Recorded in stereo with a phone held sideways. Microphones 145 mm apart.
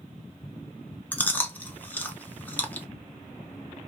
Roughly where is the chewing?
Centre.